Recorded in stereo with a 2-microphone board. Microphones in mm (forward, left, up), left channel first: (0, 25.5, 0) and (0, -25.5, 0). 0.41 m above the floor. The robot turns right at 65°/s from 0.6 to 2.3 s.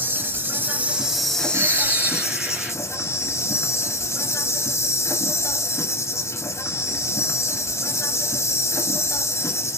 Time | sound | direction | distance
0.0 | an insect | 40° right | 1.2 m
1.5 | a bird | 65° right | 2 m